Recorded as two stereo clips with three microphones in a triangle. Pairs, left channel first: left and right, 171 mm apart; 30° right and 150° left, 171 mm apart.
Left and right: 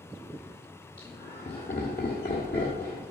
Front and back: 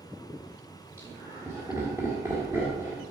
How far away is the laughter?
About 1.6 m.